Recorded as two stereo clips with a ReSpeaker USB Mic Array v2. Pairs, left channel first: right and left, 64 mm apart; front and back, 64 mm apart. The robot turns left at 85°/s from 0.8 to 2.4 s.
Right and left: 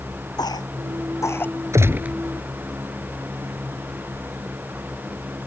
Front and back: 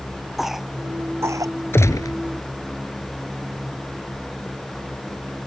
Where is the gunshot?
50° left; by 2.1 s 15° left.